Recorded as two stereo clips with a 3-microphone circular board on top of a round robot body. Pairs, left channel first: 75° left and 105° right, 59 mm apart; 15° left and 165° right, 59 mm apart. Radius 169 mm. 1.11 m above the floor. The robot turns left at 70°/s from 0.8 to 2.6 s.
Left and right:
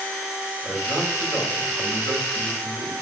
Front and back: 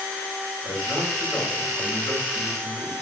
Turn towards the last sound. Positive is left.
turn(degrees=-165)